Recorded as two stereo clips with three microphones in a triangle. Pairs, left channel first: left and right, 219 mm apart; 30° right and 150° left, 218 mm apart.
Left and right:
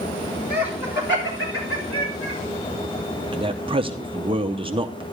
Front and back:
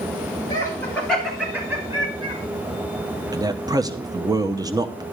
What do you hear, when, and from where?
0.5 s laughter: 40° left, 3 m; by 2.4 s 85° left, 3.5 m
3.3 s a man speaking: 145° right, 0.7 m